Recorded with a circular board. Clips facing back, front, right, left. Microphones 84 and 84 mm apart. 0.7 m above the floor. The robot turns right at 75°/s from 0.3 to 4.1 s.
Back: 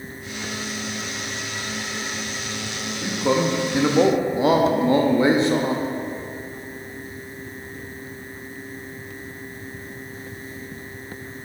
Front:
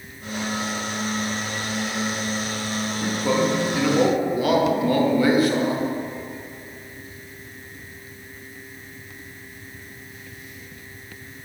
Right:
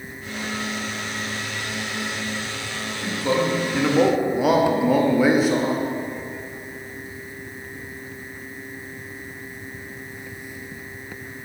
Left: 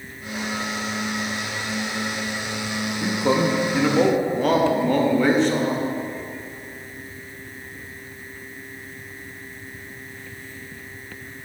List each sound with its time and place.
3.0 s a man speaking: 110° left, 0.7 m; by 5.8 s 165° right, 0.7 m